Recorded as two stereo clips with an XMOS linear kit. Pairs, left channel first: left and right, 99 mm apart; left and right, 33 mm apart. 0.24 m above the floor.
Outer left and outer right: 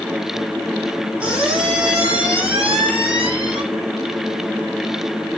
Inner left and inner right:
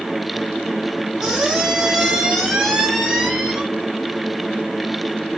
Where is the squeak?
10° right (ahead or behind), 4.5 m.